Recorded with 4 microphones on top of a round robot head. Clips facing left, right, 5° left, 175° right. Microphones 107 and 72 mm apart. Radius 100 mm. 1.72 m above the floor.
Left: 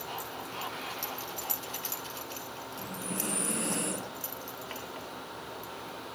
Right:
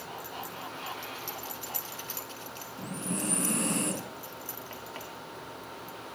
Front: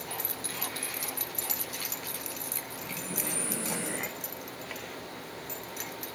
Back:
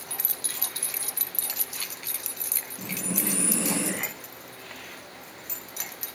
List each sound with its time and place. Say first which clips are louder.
2.8 s breathing: right 4 dB, back 7 dB; 145° right, 3 m